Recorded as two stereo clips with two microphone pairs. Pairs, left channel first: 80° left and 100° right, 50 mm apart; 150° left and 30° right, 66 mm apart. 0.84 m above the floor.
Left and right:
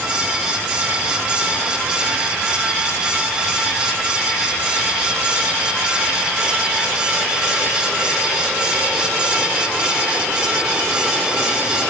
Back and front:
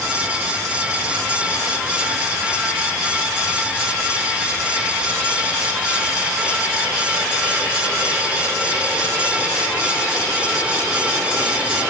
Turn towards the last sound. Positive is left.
No sound to turn to.